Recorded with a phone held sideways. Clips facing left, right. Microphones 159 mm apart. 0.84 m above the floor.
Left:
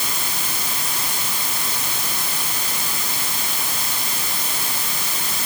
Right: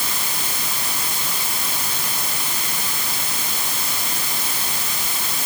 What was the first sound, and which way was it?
Only background noise.